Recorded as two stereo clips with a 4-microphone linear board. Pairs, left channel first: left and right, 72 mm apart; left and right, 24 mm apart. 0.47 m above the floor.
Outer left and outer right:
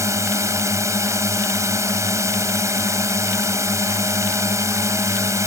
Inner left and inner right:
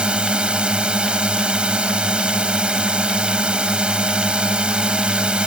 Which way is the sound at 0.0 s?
45° right (ahead or behind).